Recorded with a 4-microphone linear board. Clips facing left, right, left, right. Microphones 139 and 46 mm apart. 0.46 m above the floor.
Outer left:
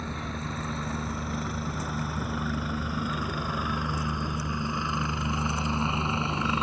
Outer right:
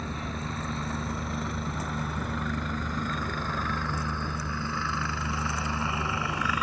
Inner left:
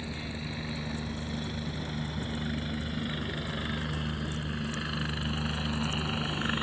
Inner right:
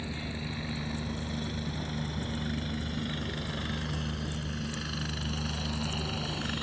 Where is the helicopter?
Centre (ahead or behind); by 6.6 s 25° left (ahead or behind).